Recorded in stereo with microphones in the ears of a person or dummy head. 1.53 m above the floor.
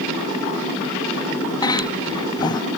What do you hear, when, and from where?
1.6 s a cough: 20° left (ahead or behind)